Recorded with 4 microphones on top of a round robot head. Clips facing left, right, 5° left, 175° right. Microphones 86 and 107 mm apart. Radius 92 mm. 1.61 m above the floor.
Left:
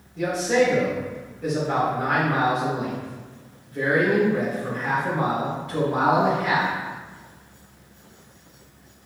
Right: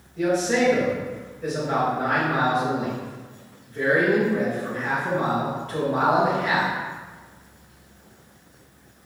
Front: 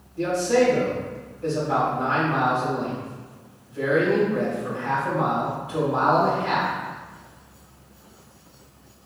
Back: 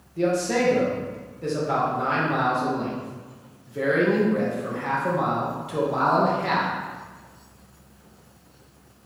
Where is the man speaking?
175° left, 2.5 m.